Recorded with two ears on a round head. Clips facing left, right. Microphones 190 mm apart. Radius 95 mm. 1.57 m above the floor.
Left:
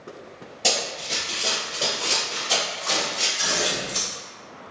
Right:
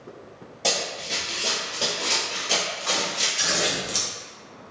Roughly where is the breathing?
I don't hear breathing.